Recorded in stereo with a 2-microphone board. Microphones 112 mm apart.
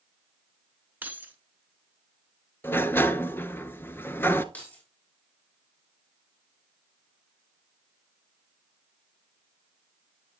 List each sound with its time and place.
1.0 s keys jangling: 15° right (ahead or behind), 1.1 m
2.6 s a sliding door: 20° left (ahead or behind), 0.6 m
4.5 s keys jangling: 15° left (ahead or behind), 4 m